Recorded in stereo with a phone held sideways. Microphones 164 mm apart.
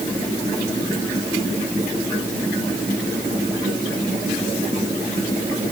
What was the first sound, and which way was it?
Only background noise.